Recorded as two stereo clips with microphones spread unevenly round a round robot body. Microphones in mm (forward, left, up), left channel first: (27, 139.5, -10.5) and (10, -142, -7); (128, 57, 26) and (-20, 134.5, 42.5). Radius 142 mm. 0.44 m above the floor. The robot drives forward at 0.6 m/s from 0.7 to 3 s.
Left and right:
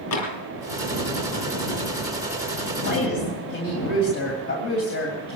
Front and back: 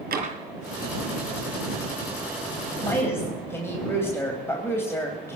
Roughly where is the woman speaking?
Ahead left.